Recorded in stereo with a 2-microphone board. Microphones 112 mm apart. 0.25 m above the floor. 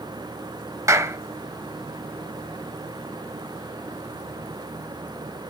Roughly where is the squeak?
No squeak in this recording.